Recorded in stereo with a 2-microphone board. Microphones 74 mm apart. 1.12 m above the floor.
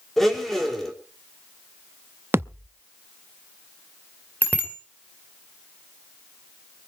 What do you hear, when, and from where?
0.2 s a blender: 5° left (ahead or behind), 3 m
2.3 s a thud: 30° right (ahead or behind), 0.6 m
4.4 s a bicycle bell: 25° left (ahead or behind), 2.5 m